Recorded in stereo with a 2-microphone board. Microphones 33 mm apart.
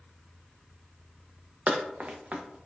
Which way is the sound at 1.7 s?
50° right (ahead or behind).